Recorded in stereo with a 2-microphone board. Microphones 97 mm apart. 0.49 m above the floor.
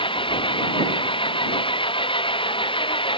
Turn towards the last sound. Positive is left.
turn(degrees=60)  # may be behind; listen again after turning